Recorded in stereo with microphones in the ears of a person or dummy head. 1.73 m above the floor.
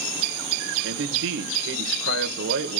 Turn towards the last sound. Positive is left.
turn(degrees=-70)  # may be behind; listen again after turning